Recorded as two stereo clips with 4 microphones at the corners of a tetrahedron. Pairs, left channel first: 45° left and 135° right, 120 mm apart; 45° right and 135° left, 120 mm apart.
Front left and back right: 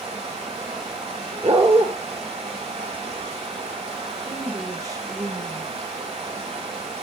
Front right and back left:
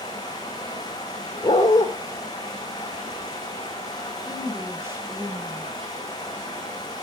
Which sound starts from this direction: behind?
A woman speaking, at 4.3 s.